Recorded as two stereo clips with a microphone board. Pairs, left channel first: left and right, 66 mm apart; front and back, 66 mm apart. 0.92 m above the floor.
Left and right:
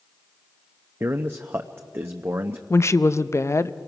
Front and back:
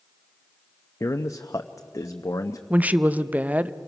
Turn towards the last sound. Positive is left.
turn(degrees=120)